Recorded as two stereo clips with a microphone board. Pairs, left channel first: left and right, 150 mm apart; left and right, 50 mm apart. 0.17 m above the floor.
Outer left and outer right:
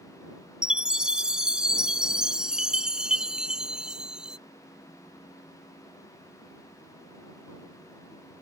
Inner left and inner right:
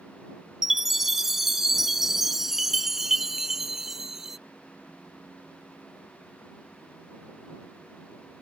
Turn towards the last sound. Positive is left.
turn(degrees=-5)  # may be behind; listen again after turning